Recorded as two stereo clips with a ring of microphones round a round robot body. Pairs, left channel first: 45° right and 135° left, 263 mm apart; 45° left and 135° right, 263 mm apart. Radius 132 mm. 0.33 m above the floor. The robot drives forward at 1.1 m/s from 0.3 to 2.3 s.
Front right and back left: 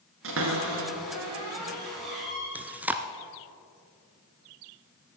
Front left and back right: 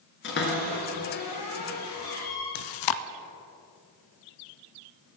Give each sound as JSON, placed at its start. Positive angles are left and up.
{"t": 0.2, "sound": "a cupboard door", "azimuth_deg": 95, "distance_m": 3.5}
{"t": 2.5, "sound": "chewing", "azimuth_deg": 50, "distance_m": 0.6}